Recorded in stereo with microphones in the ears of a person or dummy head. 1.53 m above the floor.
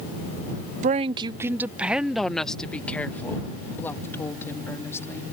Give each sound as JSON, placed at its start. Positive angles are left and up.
{"t": 0.8, "sound": "a woman speaking", "side_deg": -45}